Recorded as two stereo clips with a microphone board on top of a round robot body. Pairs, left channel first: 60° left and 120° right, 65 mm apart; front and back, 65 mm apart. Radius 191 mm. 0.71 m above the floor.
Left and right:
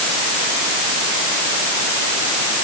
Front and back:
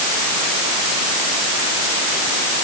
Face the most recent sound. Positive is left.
No sound to turn to.